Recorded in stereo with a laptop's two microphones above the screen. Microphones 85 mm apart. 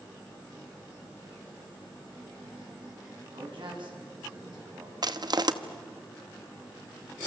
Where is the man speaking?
75° right (ahead or behind), 8.5 m; by 4.9 s 60° right (ahead or behind), 8 m.